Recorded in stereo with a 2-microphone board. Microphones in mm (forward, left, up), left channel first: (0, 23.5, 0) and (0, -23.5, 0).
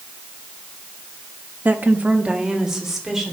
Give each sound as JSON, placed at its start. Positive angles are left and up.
{"t": 1.6, "sound": "a woman speaking", "side_deg": -40, "distance_m": 1.2}